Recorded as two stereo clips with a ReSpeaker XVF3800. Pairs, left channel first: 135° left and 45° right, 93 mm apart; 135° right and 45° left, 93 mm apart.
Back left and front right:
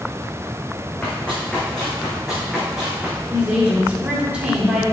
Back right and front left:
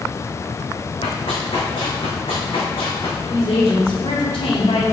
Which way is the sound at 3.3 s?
125° right.